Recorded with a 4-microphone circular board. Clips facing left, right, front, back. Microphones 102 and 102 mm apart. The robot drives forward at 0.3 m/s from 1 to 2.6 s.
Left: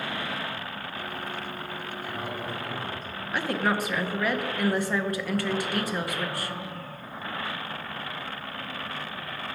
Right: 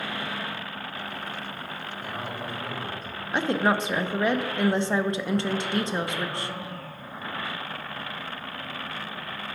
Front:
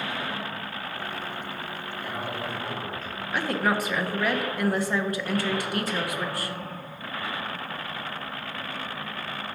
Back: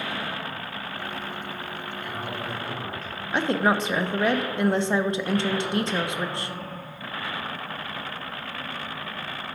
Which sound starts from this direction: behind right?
A woman speaking, at 3.3 s.